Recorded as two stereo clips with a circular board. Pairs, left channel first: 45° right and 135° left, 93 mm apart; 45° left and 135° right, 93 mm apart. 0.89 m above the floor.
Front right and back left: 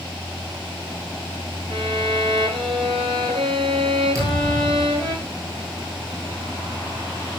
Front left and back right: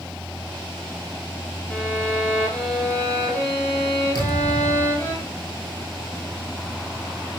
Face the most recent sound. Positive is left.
turn(degrees=85)